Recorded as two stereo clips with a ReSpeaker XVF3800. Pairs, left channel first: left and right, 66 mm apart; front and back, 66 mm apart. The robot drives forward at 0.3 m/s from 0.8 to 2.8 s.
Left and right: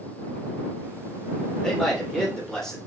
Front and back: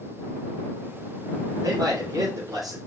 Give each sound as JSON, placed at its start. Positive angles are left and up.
{"t": 1.6, "sound": "a man speaking", "azimuth_deg": 175, "distance_m": 3.0}